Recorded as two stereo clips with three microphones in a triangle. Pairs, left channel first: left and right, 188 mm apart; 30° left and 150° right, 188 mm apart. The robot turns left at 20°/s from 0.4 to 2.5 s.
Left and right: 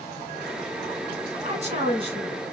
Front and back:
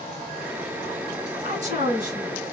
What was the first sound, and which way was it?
A woman speaking, 125° right.